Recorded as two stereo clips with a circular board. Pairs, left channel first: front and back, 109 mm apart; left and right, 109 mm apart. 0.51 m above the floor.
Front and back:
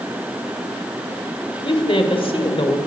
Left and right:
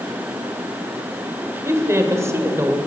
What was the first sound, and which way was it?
A woman speaking, 30° right.